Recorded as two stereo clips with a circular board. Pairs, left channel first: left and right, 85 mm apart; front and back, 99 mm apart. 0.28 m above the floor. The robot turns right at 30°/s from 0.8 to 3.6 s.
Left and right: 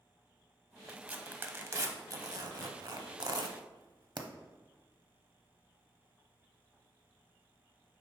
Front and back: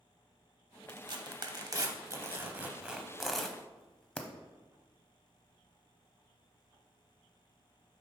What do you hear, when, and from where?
0.9 s tearing paper: 160° right, 0.6 m; by 4.3 s 80° right, 0.6 m